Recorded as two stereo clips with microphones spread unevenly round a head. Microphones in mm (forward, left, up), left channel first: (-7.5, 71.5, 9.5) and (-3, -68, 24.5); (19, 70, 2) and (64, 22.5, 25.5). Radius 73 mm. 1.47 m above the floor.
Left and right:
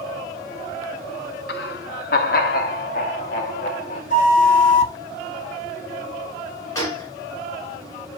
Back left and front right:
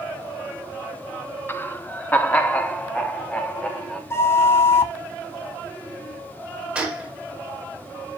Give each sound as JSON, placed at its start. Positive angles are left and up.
{"t": 1.5, "sound": "laughter", "azimuth_deg": 75, "distance_m": 0.7}
{"t": 4.1, "sound": "a flute", "azimuth_deg": 70, "distance_m": 1.3}
{"t": 6.8, "sound": "a gunshot", "azimuth_deg": 20, "distance_m": 4.5}